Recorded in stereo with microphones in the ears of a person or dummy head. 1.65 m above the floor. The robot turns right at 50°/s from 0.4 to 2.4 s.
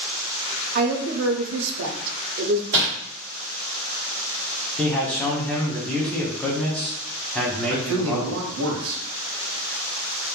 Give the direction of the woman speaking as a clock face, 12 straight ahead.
4 o'clock.